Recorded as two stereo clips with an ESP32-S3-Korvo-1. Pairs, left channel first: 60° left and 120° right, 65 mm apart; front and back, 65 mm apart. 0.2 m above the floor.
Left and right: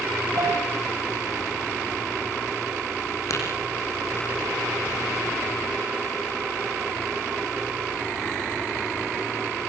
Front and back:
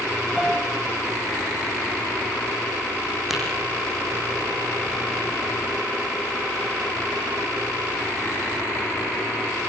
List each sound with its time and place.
0.4 s a piano: 95° right, 6 m
3.3 s tapping: 95° left, 7 m